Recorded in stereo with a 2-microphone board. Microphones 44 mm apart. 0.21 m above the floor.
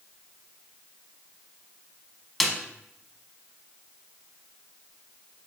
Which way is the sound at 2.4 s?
Centre (ahead or behind).